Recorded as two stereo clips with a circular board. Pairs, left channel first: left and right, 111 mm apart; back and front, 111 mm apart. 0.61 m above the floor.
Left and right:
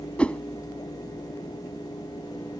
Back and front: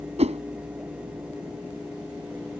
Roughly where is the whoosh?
Ahead.